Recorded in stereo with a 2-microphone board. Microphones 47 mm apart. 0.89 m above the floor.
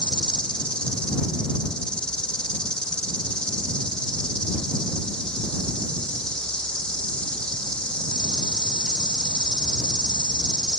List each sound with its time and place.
0.0 s an insect: 20° left (ahead or behind)